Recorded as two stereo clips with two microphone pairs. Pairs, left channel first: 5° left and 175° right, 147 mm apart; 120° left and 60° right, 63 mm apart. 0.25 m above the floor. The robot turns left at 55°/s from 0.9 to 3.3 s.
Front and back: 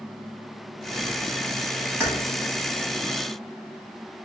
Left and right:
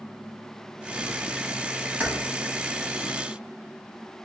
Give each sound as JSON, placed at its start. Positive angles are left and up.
{"t": 2.0, "sound": "keys jangling", "azimuth_deg": -110, "distance_m": 1.2}